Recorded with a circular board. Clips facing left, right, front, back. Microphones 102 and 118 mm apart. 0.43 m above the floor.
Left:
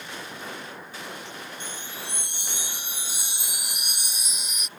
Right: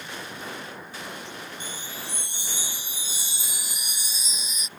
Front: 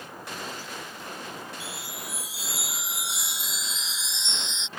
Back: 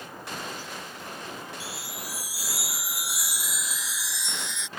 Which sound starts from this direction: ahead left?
A chime, at 1.6 s.